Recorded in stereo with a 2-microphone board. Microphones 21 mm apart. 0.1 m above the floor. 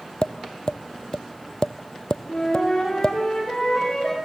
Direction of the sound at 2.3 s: 20° left (ahead or behind).